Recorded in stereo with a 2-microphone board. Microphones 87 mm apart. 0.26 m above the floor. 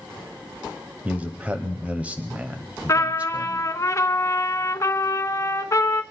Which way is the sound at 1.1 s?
15° right (ahead or behind).